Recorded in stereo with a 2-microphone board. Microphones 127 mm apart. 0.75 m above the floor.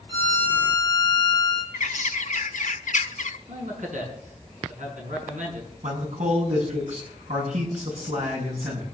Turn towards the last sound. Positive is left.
turn(degrees=-70)  # may be behind; listen again after turning